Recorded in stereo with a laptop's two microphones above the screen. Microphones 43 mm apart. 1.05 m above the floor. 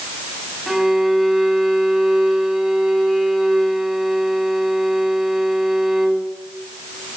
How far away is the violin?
About 1.7 m.